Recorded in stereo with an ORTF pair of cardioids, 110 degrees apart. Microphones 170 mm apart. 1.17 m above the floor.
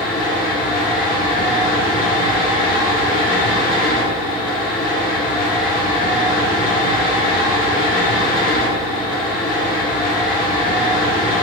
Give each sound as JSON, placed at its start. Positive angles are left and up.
{"t": 0.0, "sound": "a fan", "azimuth_deg": 60, "distance_m": 1.8}